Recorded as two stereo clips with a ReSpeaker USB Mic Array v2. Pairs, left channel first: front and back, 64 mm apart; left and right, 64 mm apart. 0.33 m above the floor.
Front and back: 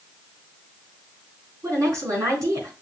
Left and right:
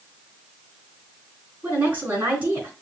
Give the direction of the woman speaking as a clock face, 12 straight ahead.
5 o'clock.